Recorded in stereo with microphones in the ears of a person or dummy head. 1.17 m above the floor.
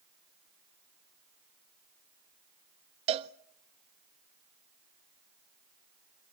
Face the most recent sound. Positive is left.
turn(degrees=-30)  # may be behind; listen again after turning